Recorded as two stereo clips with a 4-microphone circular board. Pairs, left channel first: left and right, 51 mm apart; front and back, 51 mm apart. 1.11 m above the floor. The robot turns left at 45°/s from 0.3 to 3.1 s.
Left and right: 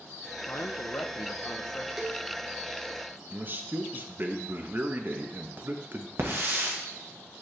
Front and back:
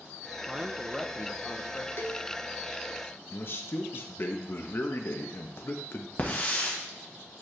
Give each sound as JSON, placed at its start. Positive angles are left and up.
{"t": 0.5, "sound": "a man speaking", "azimuth_deg": 110, "distance_m": 0.7}
{"t": 2.0, "sound": "a cowbell", "azimuth_deg": 0, "distance_m": 0.9}
{"t": 3.3, "sound": "a man speaking", "azimuth_deg": -40, "distance_m": 0.8}
{"t": 6.2, "sound": "a hiss", "azimuth_deg": -50, "distance_m": 1.3}